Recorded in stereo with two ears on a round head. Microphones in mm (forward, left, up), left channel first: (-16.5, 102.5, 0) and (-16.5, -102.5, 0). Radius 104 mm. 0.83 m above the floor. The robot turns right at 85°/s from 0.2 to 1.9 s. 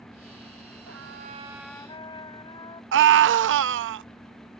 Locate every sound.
0.9 s a trumpet: 70° right; by 2.8 s 20° left
2.9 s a scream: 55° right (ahead or behind)